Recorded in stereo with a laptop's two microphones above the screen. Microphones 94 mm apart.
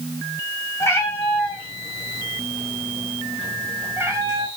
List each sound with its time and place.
0.8 s a cat meowing: 30° left (ahead or behind), 2 m; by 4.5 s 30° right (ahead or behind), 2 m